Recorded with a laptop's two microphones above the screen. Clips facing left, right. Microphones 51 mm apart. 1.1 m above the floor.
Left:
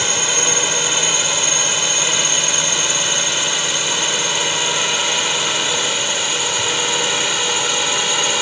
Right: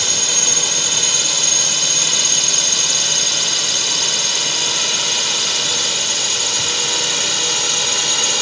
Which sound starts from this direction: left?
A drone, at 0.0 s.